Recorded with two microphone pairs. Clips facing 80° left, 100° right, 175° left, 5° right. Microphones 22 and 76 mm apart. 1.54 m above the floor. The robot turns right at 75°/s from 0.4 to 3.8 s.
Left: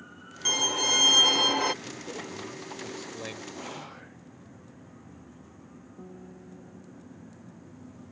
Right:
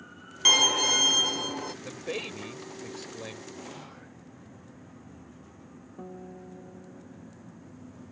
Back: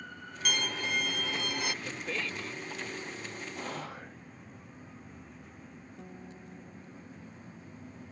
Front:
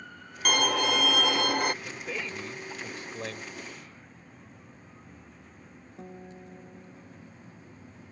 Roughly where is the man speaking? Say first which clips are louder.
Right 3 dB, even; right.